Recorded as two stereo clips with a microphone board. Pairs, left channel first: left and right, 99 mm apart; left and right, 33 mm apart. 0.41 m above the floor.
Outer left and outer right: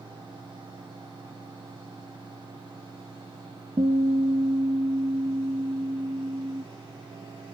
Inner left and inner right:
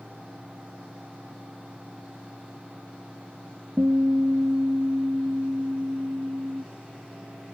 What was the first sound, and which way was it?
A guitar, 75° right (ahead or behind).